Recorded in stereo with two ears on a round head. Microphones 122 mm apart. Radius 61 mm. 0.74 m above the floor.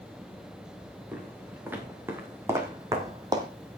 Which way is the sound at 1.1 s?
10° right (ahead or behind).